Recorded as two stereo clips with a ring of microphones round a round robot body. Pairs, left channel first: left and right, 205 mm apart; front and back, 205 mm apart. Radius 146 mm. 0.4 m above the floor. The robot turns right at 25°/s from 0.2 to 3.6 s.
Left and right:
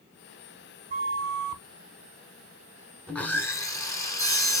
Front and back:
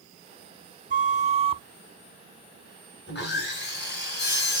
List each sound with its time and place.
0.9 s a flute: 135° right, 0.5 m; by 1.6 s 115° right, 0.5 m
3.1 s sawing: 5° left, 1.2 m; by 4.6 s 20° left, 1.2 m